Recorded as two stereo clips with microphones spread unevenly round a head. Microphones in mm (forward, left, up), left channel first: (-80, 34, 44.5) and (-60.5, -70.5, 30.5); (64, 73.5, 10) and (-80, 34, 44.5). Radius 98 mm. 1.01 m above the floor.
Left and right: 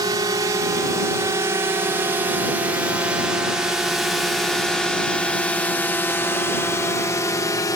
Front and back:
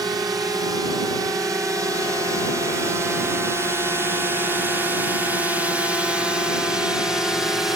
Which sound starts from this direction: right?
A drone, at 0.0 s.